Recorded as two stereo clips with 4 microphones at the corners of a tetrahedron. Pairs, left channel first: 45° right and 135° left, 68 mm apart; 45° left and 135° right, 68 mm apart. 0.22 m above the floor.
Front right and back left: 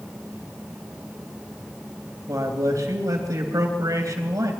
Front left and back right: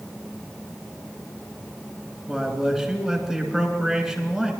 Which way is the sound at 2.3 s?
140° left.